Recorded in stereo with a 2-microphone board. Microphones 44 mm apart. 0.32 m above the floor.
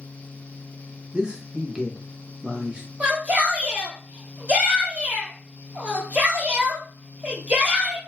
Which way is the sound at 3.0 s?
35° right (ahead or behind).